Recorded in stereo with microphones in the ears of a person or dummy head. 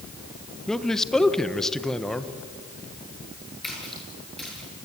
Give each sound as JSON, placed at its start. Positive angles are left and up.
{"t": 0.7, "sound": "a man speaking", "side_deg": 5, "distance_m": 1.2}
{"t": 3.6, "sound": "a splash", "side_deg": -5, "distance_m": 7.5}